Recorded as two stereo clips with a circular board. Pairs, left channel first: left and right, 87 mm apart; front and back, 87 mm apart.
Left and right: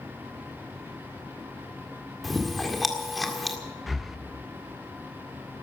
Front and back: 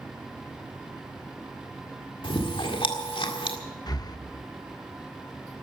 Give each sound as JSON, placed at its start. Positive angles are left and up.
{"t": 2.2, "sound": "chewing", "azimuth_deg": 0, "distance_m": 1.8}
{"t": 3.9, "sound": "breathing", "azimuth_deg": 0, "distance_m": 0.7}